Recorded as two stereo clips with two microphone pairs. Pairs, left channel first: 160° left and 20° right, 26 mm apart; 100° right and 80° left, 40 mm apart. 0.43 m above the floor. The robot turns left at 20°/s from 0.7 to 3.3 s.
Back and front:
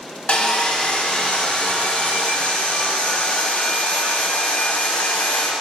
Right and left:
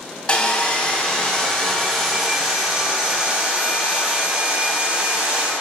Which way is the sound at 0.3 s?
160° right.